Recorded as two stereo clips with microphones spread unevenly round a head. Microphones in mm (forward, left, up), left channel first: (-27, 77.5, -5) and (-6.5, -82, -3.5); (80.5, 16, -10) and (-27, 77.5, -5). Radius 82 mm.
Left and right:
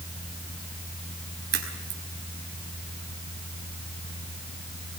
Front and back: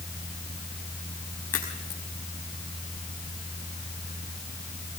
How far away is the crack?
About 5 m.